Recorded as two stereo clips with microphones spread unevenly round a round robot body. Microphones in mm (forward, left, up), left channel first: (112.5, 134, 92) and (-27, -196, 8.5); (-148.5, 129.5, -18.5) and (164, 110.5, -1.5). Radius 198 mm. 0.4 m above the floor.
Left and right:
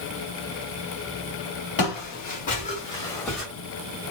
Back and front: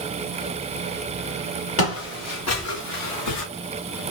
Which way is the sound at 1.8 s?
130° left.